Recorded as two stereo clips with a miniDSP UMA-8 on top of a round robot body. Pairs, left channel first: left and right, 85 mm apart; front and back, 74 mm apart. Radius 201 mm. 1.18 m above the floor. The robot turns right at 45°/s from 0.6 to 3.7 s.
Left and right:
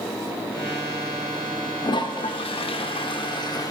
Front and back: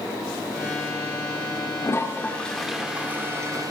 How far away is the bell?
No bell in this recording.